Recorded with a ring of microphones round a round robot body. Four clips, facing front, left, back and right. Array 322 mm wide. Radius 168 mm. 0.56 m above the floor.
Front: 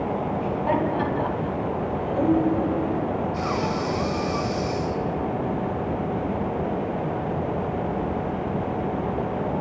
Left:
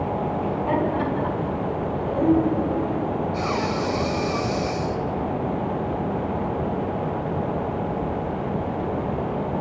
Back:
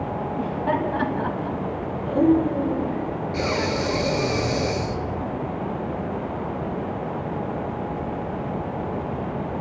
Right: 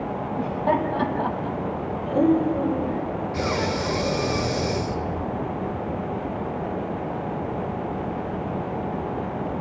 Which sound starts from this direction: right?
Laughter, at 0.4 s.